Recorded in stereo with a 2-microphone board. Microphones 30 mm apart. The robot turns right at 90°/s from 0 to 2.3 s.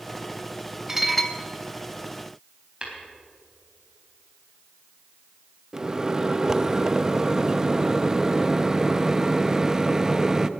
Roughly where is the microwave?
Right.